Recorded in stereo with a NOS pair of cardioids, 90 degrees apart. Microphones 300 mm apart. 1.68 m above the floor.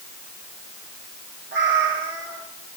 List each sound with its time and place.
1.5 s a cat meowing: 35° right, 3.5 m